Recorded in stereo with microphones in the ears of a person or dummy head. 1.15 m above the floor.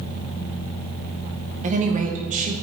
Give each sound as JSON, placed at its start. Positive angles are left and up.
{"t": 1.6, "sound": "a woman speaking", "side_deg": -40, "distance_m": 1.0}